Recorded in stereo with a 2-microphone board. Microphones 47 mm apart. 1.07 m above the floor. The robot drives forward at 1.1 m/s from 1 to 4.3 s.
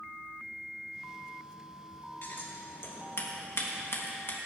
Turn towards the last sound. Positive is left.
turn(degrees=55)  # may be behind; listen again after turning